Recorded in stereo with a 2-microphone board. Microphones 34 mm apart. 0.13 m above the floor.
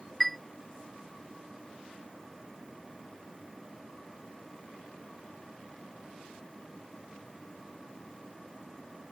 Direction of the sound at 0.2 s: 5° left (ahead or behind).